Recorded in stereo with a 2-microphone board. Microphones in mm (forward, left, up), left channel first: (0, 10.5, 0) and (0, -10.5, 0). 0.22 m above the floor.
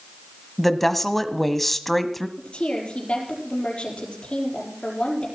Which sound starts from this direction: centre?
A woman speaking, at 0.6 s.